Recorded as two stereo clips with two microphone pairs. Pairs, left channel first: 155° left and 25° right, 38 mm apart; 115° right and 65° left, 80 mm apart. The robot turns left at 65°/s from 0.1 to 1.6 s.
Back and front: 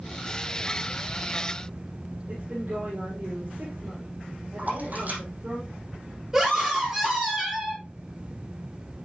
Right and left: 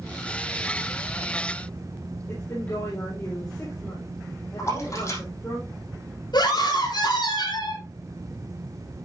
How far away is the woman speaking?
About 4.5 m.